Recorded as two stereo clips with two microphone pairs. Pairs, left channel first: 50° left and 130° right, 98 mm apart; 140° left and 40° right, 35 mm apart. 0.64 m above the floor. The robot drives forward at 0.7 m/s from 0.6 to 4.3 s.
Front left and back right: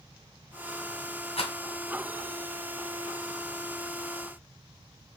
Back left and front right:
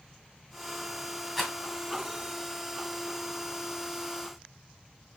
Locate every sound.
1.4 s a rattle: 50° left, 1.9 m; by 1.5 s 55° left, 1.8 m